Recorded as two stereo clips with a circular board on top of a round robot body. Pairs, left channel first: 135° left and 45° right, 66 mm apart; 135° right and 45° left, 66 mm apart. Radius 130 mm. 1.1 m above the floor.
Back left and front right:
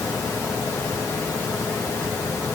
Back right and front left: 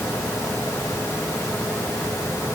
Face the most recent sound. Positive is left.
No sound to turn to.